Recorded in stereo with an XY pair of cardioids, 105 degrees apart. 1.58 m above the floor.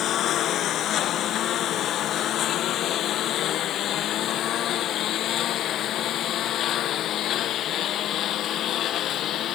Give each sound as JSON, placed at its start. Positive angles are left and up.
{"t": 0.0, "sound": "a lawn mower", "azimuth_deg": 70}